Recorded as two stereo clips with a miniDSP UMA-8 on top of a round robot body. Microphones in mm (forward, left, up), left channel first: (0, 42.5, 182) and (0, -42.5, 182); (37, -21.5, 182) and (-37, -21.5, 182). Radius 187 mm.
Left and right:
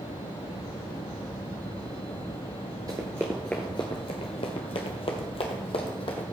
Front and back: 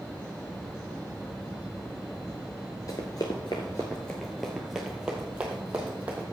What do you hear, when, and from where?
2.9 s running footsteps: 45° right, 0.6 m; by 6.2 s 105° left, 1.6 m